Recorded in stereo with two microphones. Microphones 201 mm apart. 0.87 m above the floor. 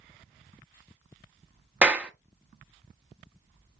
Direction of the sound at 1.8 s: 5° right (ahead or behind).